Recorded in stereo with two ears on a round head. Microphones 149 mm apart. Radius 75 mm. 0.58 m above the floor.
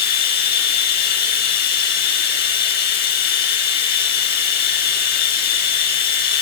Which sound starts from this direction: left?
Running water, at 0.0 s.